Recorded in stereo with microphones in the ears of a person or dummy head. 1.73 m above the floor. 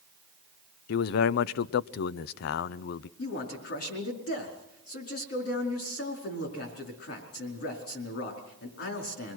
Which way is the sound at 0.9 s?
65° left (ahead or behind).